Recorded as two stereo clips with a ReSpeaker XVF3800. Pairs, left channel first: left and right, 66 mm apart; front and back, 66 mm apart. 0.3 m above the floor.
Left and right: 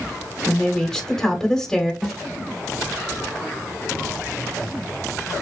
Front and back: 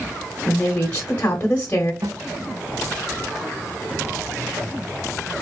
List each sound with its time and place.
0.5 s a woman speaking: 15° left, 1.0 m
2.0 s a snare drum: 175° left, 1.3 m